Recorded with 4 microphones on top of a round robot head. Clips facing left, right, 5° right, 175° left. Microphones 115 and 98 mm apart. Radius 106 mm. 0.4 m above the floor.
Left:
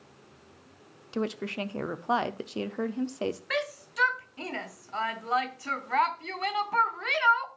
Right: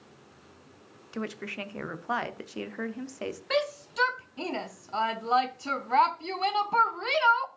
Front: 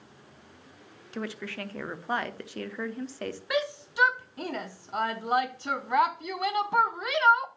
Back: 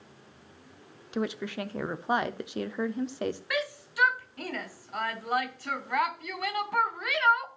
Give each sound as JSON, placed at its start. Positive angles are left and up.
{"t": 1.1, "sound": "a woman speaking", "azimuth_deg": 130, "distance_m": 0.9}
{"t": 3.5, "sound": "a shout", "azimuth_deg": -50, "distance_m": 0.8}